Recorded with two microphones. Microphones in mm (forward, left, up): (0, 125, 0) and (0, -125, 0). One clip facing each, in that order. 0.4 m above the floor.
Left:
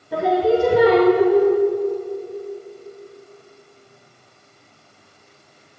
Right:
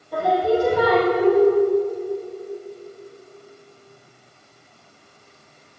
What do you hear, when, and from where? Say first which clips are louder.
0.1 s singing: left 3 dB; 80° left, 2 m